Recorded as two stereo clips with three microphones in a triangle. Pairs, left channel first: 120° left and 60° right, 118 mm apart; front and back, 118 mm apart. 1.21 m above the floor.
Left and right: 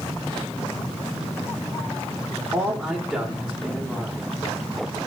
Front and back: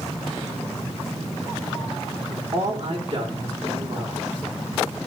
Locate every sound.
2.5 s a man speaking: 155° right, 3 m